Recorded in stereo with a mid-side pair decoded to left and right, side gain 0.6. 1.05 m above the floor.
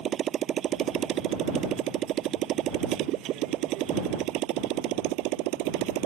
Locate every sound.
0.0 s a motorcycle: 45° right; by 6.1 s 75° right